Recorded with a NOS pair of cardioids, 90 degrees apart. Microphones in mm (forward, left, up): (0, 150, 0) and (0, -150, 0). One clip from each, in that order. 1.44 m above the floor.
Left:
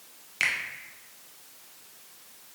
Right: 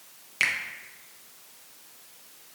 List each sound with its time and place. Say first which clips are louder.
0.4 s a finger snap: right 1 dB; 10° right, 0.6 m